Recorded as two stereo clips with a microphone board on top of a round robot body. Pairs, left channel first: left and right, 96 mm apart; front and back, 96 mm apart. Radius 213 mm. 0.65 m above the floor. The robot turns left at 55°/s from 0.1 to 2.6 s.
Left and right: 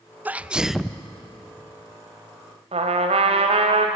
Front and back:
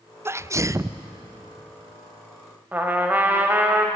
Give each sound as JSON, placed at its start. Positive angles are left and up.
{"t": 0.2, "sound": "a sneeze", "azimuth_deg": -145, "distance_m": 0.8}
{"t": 2.7, "sound": "a trumpet", "azimuth_deg": -105, "distance_m": 1.2}